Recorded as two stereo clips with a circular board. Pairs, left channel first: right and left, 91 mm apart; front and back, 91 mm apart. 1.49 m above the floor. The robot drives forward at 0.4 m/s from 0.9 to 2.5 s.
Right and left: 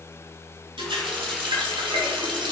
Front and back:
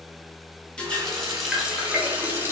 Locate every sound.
0.8 s a running tap: 80° left, 1.0 m; by 2.5 s 115° left, 1.1 m